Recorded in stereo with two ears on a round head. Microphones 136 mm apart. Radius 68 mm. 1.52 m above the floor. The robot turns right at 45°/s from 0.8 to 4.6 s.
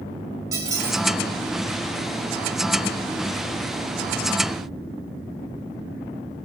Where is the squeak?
20° right (ahead or behind), 1.3 m.